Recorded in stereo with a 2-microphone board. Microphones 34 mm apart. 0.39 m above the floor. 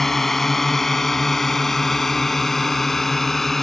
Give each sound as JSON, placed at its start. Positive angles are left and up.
{"t": 0.0, "sound": "a drone", "side_deg": 5}